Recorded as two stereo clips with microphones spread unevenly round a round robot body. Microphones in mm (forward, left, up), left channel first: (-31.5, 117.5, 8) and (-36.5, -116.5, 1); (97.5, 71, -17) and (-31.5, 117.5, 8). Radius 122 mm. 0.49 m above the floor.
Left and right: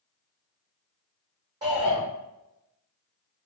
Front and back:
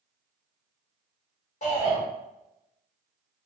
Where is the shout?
20° right, 1.4 m.